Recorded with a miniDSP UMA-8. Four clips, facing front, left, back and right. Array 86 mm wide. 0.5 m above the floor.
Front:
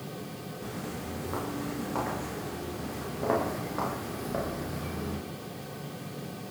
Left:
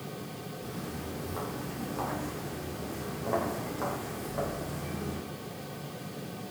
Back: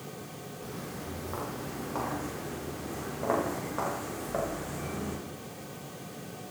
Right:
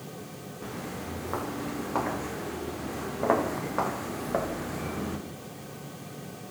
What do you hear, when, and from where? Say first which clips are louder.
0.6 s footsteps: right 4 dB, front 2 dB; 85° right, 10 m; by 5.2 s 105° right, 8 m